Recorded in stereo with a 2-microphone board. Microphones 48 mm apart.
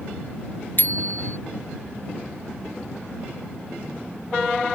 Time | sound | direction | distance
0.8 | a bicycle bell | 45° left (ahead or behind) | ?